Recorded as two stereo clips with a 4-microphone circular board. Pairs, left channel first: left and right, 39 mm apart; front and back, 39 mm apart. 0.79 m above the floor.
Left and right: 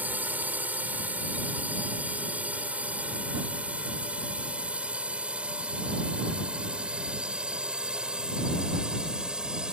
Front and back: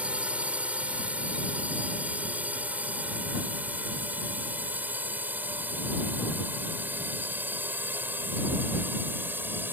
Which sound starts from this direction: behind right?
A drone, at 0.0 s.